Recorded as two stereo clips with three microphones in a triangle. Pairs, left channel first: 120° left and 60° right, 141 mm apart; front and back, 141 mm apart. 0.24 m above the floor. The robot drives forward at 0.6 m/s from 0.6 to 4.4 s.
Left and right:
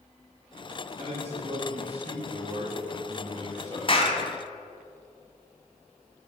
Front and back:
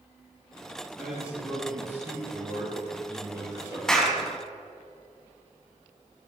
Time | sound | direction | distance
1.0 | a man speaking | 95° right | 5 m
3.9 | a clap | 85° left | 1.9 m